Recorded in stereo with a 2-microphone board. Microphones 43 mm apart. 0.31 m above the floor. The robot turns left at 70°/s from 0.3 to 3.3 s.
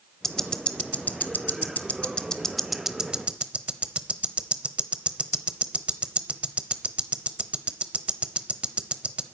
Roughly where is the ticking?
Centre.